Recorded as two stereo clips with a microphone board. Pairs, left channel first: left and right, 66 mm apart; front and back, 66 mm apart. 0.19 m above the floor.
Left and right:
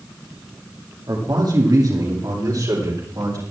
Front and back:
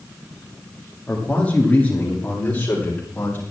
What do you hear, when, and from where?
1.1 s a man speaking: 70° right, 7.5 m; by 3.4 s 60° right, 11 m